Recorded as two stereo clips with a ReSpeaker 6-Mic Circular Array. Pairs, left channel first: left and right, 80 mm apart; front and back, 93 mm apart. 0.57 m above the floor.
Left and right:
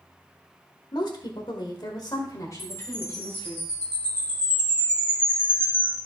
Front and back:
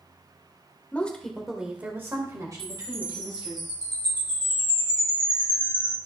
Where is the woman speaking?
70° left, 1.8 m; by 3.6 s 150° left, 3 m.